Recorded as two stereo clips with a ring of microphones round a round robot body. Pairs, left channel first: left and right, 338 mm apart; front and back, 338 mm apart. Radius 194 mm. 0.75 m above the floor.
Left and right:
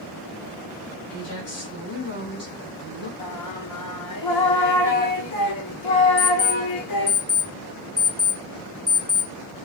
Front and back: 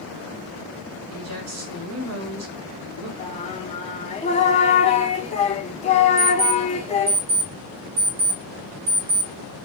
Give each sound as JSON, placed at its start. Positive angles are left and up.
{"t": 1.1, "sound": "a woman speaking", "azimuth_deg": 135, "distance_m": 3.5}
{"t": 3.2, "sound": "singing", "azimuth_deg": 70, "distance_m": 1.2}
{"t": 6.2, "sound": "an alarm clock", "azimuth_deg": 155, "distance_m": 3.5}